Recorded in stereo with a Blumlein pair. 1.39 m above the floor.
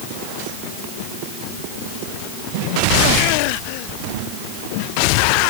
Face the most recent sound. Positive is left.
No sound to turn to.